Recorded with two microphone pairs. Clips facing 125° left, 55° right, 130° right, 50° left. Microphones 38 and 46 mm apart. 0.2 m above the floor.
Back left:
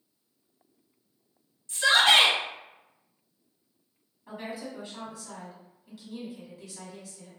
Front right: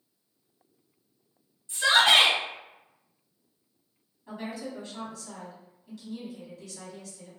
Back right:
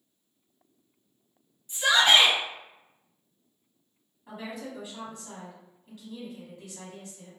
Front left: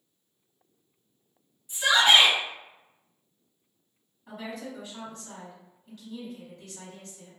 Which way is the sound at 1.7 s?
30° right.